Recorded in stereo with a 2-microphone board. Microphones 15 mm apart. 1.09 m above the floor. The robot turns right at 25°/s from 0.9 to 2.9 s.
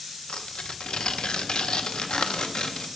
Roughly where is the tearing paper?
Left.